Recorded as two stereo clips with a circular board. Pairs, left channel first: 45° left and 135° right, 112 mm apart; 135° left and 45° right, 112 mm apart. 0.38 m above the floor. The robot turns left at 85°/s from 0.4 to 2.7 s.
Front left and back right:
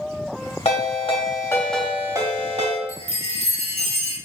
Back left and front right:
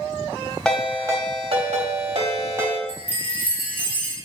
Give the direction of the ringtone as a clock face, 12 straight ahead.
10 o'clock.